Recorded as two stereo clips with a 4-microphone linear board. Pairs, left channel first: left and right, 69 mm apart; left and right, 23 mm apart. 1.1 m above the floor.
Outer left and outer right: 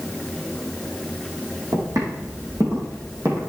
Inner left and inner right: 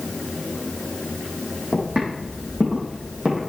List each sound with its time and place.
1.7 s footsteps: 55° right (ahead or behind), 3.5 m; by 3.4 s 40° right (ahead or behind), 3 m